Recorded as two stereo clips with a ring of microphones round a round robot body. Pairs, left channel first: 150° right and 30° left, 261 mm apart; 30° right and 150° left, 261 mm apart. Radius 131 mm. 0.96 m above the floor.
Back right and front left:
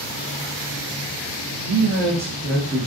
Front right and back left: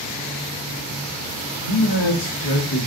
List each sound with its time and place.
1.6 s a man speaking: 25° right, 1.4 m; by 2.9 s 55° right, 1.1 m